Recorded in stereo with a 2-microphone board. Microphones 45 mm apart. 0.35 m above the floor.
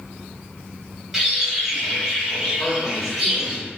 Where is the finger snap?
No finger snap in this recording.